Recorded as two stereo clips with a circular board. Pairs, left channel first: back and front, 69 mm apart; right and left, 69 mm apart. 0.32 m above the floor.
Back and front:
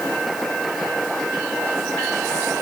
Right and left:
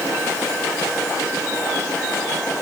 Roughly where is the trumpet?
No trumpet in this recording.